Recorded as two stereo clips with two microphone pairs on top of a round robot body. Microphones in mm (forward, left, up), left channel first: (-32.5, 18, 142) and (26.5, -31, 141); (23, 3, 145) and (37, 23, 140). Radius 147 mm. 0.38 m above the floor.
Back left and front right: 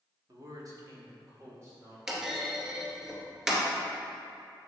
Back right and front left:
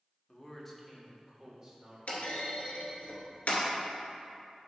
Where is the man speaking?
55° right, 1.7 m; by 2.0 s 10° left, 2.5 m.